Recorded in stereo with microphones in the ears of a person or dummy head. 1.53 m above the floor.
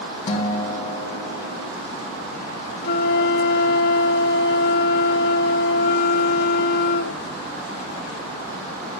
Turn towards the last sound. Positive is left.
turn(degrees=60)  # may be behind; listen again after turning